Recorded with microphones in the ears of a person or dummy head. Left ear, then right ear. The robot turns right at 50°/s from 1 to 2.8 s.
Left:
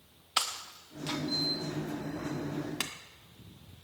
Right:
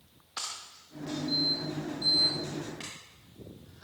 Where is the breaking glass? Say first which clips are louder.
Left 6 dB; 25° left (ahead or behind), 0.7 m.